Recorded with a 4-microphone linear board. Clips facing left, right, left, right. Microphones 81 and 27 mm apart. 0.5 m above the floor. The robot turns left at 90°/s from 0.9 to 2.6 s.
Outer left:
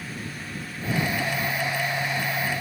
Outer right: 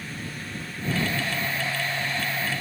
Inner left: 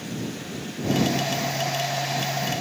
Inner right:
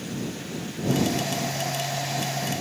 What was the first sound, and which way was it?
Only background noise.